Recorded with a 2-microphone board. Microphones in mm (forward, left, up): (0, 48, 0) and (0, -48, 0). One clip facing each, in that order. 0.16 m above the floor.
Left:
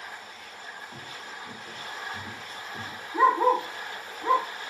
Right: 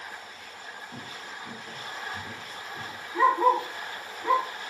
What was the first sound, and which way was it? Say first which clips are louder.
Footsteps: right 1 dB; 10° right (ahead or behind).